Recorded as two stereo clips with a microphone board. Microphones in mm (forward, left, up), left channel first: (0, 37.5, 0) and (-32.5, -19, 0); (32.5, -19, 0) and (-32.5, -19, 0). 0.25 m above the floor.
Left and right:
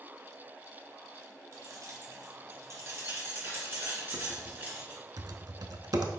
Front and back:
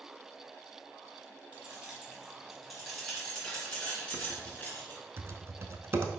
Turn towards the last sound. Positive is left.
turn(degrees=-135)